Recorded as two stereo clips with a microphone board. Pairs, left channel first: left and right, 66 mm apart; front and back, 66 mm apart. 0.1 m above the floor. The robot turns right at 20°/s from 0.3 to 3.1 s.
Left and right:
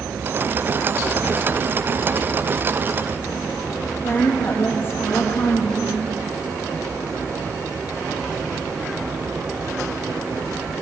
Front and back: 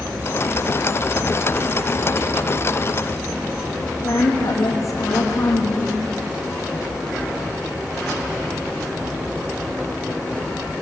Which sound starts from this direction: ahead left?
A woman speaking, at 4.0 s.